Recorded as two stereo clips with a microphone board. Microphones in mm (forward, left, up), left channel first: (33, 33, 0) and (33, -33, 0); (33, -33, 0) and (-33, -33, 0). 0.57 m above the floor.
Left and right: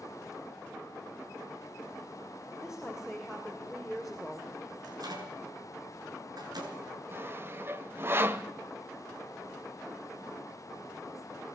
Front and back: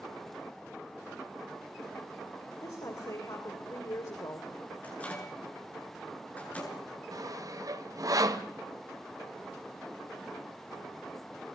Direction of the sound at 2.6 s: 10° right.